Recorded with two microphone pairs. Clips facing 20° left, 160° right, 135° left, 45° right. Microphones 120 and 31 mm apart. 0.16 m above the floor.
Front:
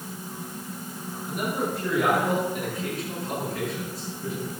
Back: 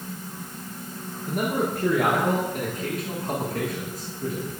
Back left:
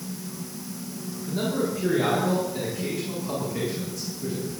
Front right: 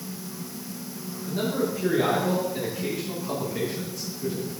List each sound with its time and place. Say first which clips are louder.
1.3 s a man speaking: back 3 dB, even; 130° right, 9 m; by 4.5 s 125° right, 11.5 m